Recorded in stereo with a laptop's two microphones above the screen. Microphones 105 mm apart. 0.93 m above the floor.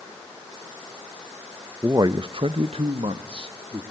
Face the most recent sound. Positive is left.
turn(degrees=-55)  # may be behind; listen again after turning